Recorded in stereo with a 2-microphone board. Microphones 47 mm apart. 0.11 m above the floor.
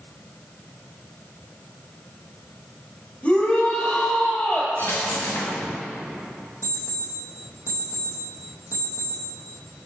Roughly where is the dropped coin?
Left.